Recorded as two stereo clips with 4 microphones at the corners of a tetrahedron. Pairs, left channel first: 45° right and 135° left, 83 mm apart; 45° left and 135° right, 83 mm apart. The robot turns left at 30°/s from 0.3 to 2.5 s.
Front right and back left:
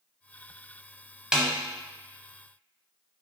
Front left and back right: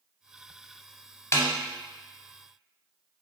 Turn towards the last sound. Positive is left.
turn(degrees=25)